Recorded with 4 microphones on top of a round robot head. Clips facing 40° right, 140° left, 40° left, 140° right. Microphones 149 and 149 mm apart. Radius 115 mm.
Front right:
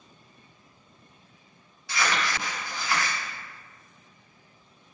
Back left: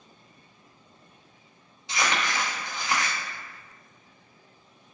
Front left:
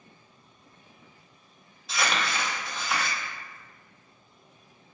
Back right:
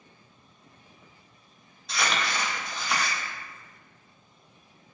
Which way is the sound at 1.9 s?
125° left.